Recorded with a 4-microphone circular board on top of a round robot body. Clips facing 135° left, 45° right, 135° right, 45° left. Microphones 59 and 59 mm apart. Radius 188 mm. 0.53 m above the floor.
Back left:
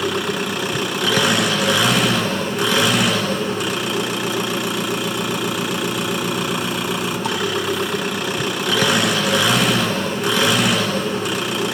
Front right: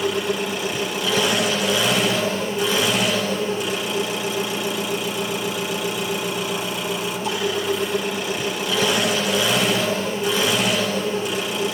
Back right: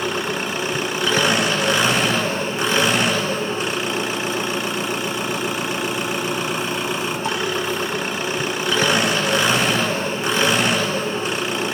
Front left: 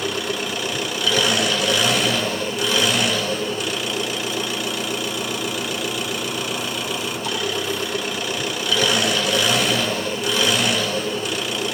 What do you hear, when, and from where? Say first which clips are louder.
0.0 s an engine running: back left 1 dB, back right 2 dB; 165° left, 2.5 m